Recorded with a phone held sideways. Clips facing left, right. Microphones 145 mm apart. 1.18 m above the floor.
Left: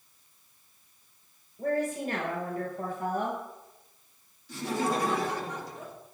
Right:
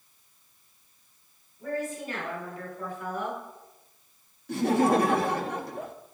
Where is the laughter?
65° right (ahead or behind), 2 m.